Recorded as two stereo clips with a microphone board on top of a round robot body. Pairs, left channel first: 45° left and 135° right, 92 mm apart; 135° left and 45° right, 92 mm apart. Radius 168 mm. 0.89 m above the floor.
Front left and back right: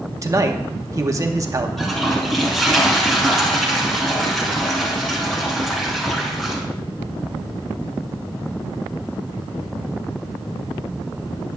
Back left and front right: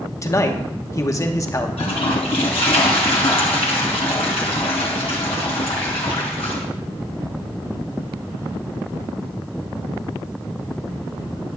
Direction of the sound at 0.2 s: Straight behind.